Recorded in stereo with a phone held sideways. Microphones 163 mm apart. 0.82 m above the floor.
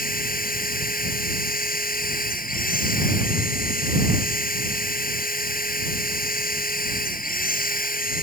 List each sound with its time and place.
0.0 s a machine running: 65° left (ahead or behind)